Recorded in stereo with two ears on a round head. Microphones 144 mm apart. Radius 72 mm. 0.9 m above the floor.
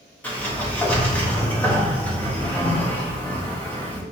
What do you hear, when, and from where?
0.2 s a sliding door: 10° left (ahead or behind), 1.3 m